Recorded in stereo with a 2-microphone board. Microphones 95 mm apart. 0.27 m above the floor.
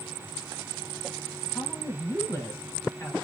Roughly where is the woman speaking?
Left.